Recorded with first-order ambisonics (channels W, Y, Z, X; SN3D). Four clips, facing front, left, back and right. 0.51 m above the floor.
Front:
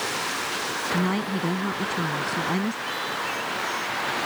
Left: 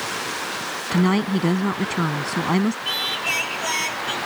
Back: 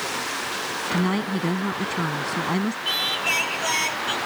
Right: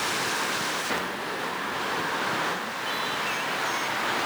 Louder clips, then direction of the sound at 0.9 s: Left 9 dB, back 2 dB; 100° left.